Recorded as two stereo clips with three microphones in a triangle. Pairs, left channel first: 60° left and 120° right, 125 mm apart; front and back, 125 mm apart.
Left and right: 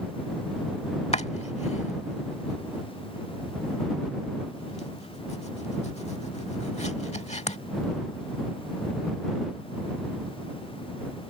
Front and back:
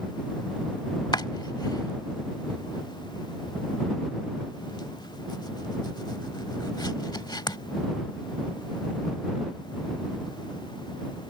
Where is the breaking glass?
I don't hear breaking glass.